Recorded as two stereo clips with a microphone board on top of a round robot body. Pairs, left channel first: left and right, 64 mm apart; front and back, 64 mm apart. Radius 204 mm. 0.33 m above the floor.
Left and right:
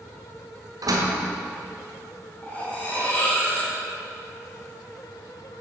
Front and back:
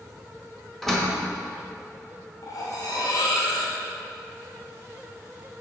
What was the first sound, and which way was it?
A door slam, 90° right.